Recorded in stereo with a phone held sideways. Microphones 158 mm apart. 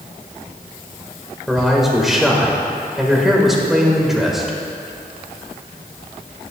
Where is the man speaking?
Centre (ahead or behind), 1.7 m.